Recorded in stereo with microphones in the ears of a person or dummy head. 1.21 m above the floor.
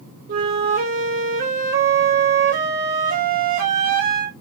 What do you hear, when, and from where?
0.3 s a flute: 45° right (ahead or behind), 1.0 m